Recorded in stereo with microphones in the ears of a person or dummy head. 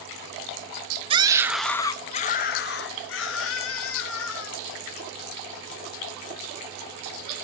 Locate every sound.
1.1 s a scream: 30° right (ahead or behind), 0.6 m; by 4.7 s 70° left (ahead or behind), 1.8 m